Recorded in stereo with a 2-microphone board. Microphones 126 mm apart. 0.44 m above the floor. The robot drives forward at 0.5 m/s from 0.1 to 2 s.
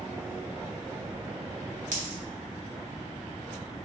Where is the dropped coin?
80° right, 1.1 m.